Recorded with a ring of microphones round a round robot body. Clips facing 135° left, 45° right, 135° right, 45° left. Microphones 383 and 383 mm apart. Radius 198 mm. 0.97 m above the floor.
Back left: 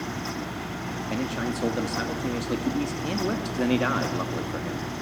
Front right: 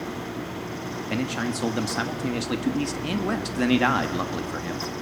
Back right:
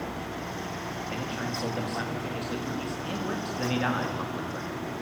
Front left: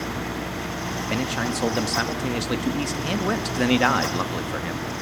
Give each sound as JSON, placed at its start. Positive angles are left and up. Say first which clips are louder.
{"t": 1.1, "sound": "a man speaking", "louder": "front right 1 dB, front left 8 dB", "azimuth_deg": 30, "distance_m": 1.5}